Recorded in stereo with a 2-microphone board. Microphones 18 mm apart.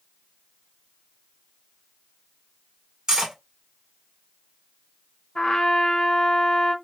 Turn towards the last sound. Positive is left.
turn(degrees=55)  # may be behind; listen again after turning